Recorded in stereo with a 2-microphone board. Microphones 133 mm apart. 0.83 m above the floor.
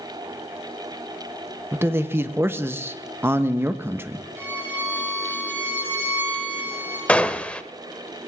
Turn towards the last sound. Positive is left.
turn(degrees=10)  # may be behind; listen again after turning